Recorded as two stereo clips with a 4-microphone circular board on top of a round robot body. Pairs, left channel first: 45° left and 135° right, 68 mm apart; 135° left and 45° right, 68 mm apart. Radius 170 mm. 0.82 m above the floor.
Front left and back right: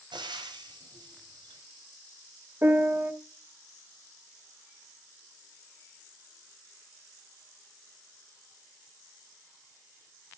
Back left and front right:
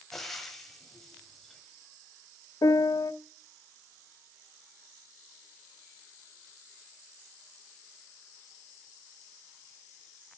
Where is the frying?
140° right, 1.5 m.